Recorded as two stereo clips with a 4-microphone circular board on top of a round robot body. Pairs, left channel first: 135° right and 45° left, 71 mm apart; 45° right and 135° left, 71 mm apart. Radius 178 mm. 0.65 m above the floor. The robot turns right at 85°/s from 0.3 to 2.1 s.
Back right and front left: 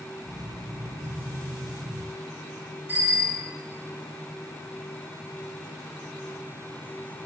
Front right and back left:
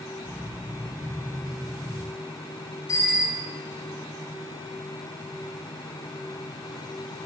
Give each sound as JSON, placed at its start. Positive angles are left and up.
{"t": 2.9, "sound": "a bicycle bell", "azimuth_deg": -10, "distance_m": 9.5}